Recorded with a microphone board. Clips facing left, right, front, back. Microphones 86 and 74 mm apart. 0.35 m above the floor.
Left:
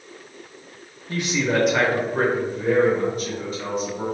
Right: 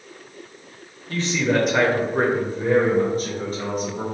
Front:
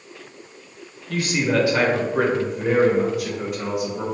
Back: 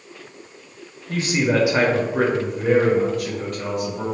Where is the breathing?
No breathing in this recording.